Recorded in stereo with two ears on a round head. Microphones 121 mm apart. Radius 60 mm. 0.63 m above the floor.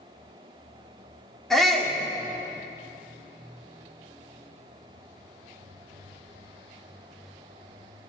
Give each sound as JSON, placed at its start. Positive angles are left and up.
{"t": 1.5, "sound": "a shout", "side_deg": 0, "distance_m": 1.7}